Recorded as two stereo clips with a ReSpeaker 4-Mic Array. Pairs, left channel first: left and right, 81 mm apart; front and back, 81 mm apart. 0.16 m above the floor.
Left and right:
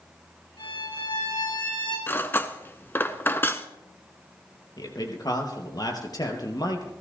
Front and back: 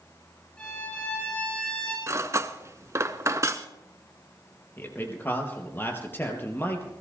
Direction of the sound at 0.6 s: 75° left.